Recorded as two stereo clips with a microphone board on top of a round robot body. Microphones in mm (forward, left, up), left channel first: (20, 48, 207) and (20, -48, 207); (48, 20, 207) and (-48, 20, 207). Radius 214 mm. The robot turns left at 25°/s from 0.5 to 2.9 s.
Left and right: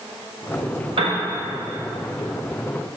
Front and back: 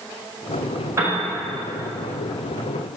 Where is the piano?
115° right, 1.1 m; by 1.2 s 120° right, 1.1 m.